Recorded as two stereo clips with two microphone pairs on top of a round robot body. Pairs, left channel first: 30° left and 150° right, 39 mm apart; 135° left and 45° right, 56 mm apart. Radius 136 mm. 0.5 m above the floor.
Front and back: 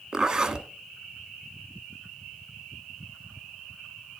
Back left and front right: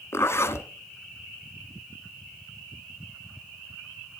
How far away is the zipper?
About 1.7 m.